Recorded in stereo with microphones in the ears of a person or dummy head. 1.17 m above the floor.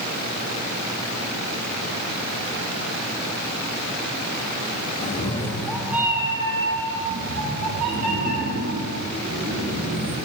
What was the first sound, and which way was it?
A cat meowing, 30° left (ahead or behind).